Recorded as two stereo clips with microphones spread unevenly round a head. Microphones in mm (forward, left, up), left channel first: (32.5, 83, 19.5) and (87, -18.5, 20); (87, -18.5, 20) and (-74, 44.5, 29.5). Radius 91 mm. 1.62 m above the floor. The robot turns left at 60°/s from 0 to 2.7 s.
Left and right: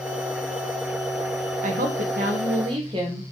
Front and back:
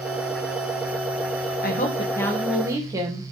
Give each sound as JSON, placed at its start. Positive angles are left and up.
{"t": 1.6, "sound": "a woman speaking", "azimuth_deg": -65, "distance_m": 1.7}